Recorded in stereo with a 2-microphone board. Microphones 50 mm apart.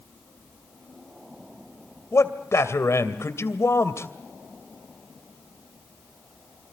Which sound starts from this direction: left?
A man speaking, at 2.1 s.